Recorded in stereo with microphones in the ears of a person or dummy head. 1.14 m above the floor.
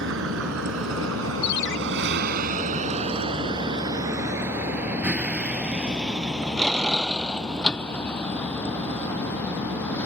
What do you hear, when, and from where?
0.0 s a vehicle: 65° right (ahead or behind); by 10.1 s 10° left (ahead or behind)
1.4 s a ringtone: 65° left (ahead or behind)